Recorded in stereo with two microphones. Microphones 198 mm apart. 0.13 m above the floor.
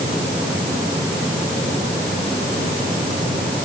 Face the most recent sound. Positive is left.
No sound to turn to.